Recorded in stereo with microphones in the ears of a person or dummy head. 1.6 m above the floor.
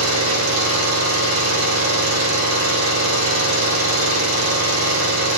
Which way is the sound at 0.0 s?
85° right.